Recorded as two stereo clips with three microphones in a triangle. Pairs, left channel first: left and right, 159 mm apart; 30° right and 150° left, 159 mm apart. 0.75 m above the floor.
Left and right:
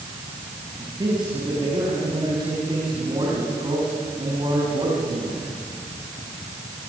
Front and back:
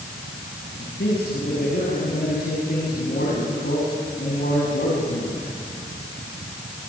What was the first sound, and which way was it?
A man speaking, 30° right.